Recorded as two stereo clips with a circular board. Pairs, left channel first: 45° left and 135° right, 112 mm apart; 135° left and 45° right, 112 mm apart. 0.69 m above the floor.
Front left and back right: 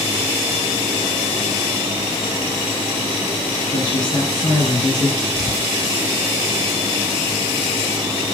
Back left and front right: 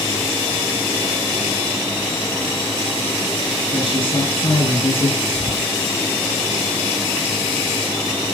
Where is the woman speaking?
85° left, 10 m; by 5.2 s 90° left, 9.5 m.